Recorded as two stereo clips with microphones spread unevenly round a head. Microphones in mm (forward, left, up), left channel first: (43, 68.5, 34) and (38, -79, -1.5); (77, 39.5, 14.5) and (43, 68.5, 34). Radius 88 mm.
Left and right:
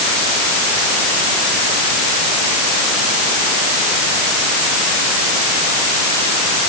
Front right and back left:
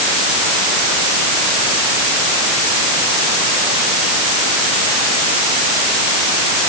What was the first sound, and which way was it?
Only background noise.